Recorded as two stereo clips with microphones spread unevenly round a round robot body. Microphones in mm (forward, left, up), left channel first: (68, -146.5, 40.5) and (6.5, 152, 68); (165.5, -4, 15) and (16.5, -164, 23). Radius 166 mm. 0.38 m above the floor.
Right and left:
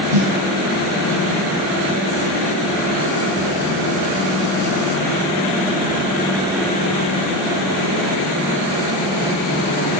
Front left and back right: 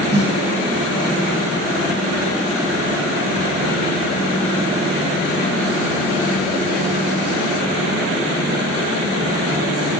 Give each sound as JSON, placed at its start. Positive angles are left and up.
{"t": 0.1, "sound": "a snare drum", "azimuth_deg": 165, "distance_m": 1.8}